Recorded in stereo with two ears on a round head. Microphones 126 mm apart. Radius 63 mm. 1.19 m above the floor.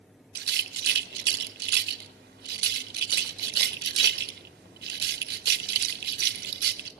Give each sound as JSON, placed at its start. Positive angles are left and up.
{"t": 0.3, "sound": "a rattle", "side_deg": -85, "distance_m": 1.2}